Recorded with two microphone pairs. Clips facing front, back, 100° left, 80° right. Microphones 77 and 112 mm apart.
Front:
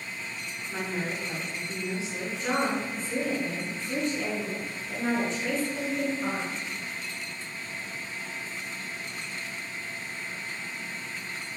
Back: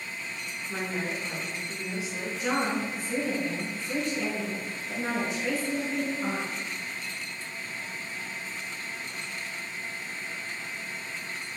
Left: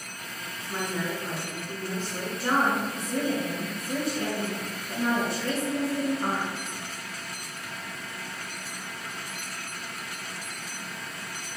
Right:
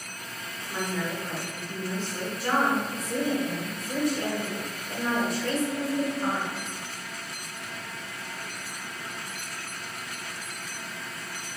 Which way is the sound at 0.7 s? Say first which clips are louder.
Even, even; 110° left.